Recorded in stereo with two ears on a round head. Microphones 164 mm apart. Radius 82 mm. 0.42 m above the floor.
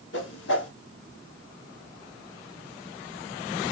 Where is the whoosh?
70° left (ahead or behind), 1.2 m.